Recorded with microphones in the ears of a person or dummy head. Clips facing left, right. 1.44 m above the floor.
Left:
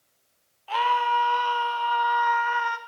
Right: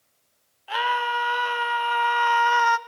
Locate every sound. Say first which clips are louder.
0.7 s a scream: left 2 dB; 15° right (ahead or behind), 2 m; by 2.8 s 65° right (ahead or behind), 0.8 m